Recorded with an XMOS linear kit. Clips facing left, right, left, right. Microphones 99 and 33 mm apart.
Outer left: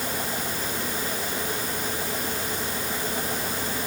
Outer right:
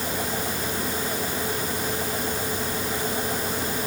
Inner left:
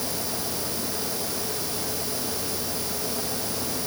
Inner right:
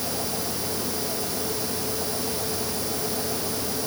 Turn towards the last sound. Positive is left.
No sound to turn to.